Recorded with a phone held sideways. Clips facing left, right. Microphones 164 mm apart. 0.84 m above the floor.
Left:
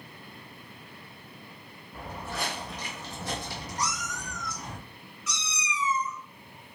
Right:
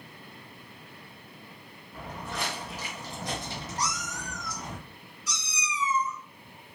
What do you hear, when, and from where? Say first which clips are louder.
1.9 s footsteps: even; 10° left (ahead or behind), 1.5 m; by 4.8 s 40° right (ahead or behind), 1.8 m
3.8 s a cat meowing: left 1 dB; 35° right (ahead or behind), 1.3 m